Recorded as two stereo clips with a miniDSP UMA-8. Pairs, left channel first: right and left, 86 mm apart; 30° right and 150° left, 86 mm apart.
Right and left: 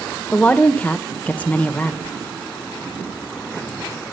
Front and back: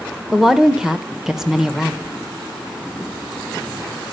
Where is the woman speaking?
135° right, 1.1 m.